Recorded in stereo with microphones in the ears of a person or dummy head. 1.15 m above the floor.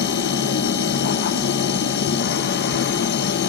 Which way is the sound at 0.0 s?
55° left (ahead or behind).